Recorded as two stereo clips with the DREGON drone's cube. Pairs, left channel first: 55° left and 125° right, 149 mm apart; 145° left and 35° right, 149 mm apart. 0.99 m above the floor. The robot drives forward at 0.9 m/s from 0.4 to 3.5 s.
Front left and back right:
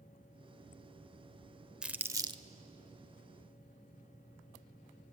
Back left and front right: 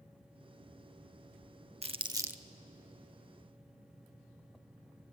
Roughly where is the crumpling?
Ahead right.